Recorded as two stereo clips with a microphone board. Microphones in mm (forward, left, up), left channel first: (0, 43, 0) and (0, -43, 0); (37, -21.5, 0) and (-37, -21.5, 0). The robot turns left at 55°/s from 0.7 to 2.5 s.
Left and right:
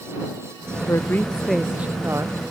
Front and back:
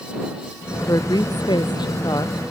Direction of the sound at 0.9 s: 40° left.